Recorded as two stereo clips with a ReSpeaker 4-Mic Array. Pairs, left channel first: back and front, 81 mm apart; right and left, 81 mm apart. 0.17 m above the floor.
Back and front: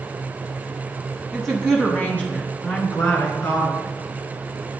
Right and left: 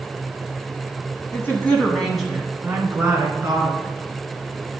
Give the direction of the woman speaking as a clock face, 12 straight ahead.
3 o'clock.